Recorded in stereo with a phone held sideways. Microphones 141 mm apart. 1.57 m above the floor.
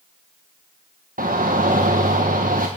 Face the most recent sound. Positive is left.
turn(degrees=-80)